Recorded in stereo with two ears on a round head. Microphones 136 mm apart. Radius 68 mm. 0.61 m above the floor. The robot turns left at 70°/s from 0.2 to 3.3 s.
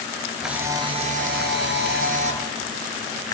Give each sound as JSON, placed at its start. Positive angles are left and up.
{"t": 0.4, "sound": "a camera shutter", "azimuth_deg": 0, "distance_m": 3.5}